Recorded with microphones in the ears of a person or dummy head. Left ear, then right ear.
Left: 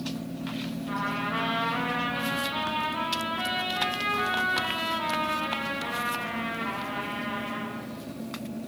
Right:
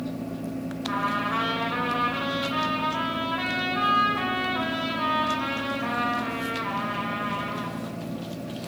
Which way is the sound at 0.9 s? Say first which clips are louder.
Right 4 dB; 70° right (ahead or behind).